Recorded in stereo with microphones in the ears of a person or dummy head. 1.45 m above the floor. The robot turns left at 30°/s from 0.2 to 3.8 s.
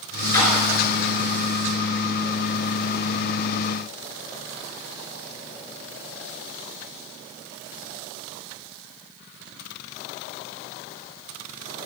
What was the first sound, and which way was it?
A splash, 20° left (ahead or behind).